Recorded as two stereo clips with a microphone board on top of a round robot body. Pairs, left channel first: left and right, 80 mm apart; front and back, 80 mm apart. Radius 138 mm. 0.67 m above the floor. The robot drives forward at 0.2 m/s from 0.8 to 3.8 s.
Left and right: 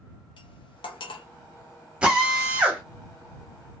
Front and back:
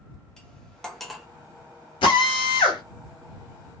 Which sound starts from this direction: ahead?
A drill, at 2.0 s.